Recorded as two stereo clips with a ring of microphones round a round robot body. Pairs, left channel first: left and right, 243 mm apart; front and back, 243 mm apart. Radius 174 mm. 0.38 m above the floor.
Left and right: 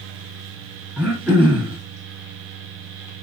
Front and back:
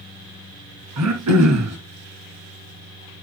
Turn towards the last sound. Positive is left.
turn(degrees=-175)